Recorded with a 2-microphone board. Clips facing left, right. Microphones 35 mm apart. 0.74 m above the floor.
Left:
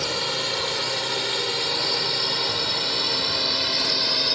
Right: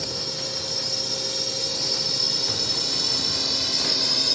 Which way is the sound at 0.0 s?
50° left (ahead or behind).